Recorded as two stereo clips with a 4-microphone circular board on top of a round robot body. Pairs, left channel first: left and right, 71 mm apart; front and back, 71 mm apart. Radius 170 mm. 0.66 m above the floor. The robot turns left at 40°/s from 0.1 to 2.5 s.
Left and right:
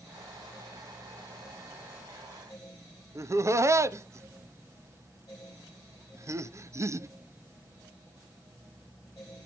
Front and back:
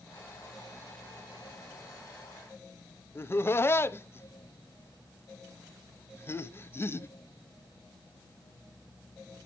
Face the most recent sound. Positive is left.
turn(degrees=-50)